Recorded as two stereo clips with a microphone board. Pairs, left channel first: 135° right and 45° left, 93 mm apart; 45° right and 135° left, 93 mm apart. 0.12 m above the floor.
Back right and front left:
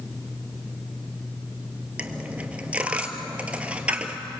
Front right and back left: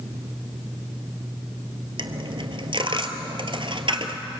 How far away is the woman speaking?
No woman speaking in this recording.